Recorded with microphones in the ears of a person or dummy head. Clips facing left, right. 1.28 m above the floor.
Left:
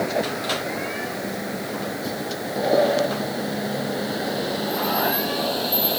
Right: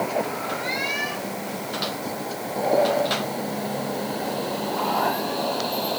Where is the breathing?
No breathing in this recording.